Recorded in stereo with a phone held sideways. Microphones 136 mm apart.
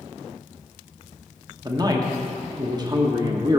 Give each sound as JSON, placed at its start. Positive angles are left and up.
{"t": 1.6, "sound": "a man speaking", "side_deg": -30, "distance_m": 0.9}